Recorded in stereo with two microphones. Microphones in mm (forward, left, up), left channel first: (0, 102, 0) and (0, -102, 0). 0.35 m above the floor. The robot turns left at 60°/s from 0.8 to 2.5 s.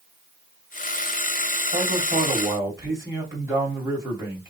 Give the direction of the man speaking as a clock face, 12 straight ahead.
4 o'clock.